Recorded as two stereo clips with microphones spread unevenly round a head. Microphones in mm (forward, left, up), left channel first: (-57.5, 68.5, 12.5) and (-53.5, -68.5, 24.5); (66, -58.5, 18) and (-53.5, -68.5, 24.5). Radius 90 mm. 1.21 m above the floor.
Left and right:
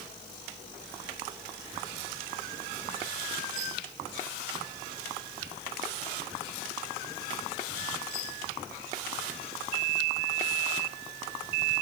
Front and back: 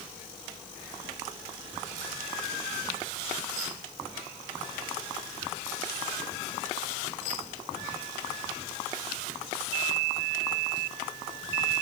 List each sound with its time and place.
Only background noise.